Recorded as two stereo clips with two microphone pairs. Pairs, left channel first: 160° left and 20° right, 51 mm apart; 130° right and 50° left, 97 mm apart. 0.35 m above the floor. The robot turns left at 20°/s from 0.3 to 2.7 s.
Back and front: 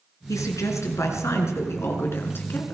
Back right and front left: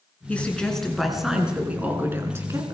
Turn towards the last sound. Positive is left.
turn(degrees=105)